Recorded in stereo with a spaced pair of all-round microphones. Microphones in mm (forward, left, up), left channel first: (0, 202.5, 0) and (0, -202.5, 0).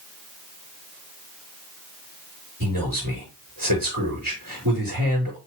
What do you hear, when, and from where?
2.6 s a man speaking: 55° right (ahead or behind), 4 m